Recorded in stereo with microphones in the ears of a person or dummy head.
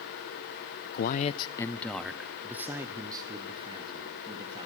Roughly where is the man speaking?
Left.